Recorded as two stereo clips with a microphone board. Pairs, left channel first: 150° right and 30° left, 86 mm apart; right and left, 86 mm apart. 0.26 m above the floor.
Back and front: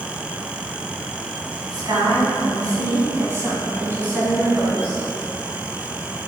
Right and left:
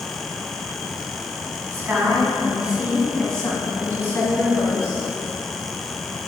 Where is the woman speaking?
40° left, 1.9 m; by 5.0 s 45° right, 2.5 m.